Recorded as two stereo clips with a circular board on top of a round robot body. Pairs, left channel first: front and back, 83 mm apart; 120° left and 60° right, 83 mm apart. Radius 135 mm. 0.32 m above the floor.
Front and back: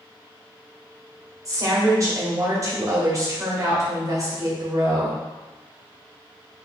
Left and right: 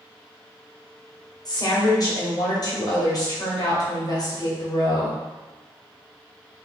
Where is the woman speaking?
140° left, 1.8 m.